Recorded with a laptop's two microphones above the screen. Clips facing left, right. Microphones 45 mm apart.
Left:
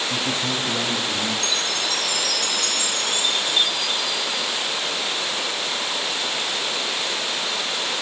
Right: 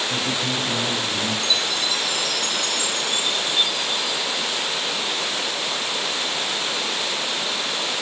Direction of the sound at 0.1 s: 55° left (ahead or behind).